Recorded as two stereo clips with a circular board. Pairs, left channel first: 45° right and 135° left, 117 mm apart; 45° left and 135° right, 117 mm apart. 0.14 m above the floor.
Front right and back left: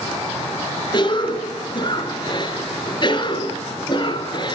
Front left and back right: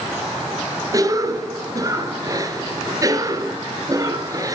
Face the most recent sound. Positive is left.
turn(degrees=-85)